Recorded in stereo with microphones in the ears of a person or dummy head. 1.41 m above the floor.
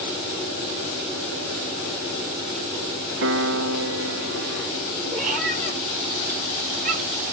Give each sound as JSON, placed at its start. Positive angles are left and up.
{"t": 3.2, "sound": "a piano", "side_deg": -65, "distance_m": 1.1}
{"t": 5.1, "sound": "a cat meowing", "side_deg": -40, "distance_m": 4.5}